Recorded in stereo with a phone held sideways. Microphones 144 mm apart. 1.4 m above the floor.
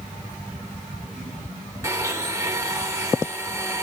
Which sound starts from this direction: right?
A blender, at 1.8 s.